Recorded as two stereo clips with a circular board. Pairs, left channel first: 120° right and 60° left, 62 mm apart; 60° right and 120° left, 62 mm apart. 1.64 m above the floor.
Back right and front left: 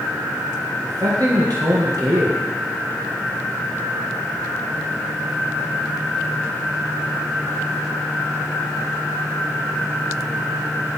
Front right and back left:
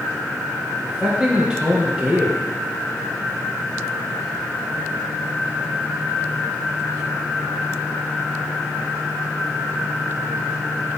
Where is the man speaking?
45° left, 1.6 m.